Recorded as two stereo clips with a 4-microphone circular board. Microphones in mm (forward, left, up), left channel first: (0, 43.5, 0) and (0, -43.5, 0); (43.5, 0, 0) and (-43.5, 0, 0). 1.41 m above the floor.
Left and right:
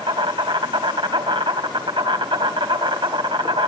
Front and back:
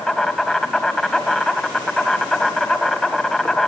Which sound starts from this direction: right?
An insect, at 0.0 s.